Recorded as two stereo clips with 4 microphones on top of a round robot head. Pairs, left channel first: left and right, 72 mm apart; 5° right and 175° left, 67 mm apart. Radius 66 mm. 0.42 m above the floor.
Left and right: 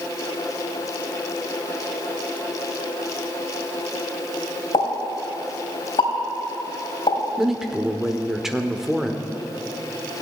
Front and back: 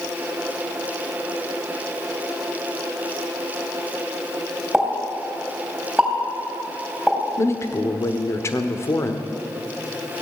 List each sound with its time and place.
4.7 s a pop: 95° left, 3.5 m
7.4 s a man speaking: 10° right, 1.1 m